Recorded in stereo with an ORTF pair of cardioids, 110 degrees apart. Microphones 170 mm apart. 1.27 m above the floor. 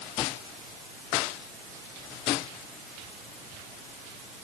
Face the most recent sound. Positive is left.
No sound to turn to.